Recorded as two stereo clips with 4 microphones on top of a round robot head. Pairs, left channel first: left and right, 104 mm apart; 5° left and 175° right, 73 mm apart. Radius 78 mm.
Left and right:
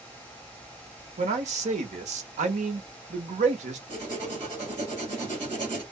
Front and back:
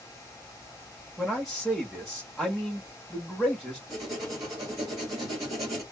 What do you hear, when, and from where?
1.2 s a man speaking: 85° right, 1.1 m
3.9 s writing: 130° right, 1.8 m